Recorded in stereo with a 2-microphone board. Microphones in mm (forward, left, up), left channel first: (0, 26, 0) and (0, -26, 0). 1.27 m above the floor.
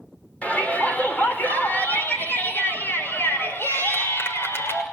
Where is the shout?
30° left (ahead or behind), 5.5 m; by 4.8 s 55° left (ahead or behind), 6.5 m.